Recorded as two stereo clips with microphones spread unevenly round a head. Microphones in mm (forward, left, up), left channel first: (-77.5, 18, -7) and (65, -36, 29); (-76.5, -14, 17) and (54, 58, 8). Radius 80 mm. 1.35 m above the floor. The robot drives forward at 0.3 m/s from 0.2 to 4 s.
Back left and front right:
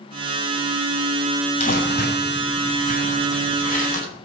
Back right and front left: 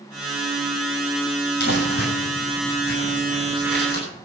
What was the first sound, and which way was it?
Crumpling, 165° right.